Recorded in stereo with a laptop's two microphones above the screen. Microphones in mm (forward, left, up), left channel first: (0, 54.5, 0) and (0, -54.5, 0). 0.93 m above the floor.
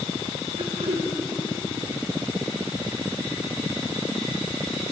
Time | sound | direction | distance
0.6 | throat clearing | 80° right | 3 m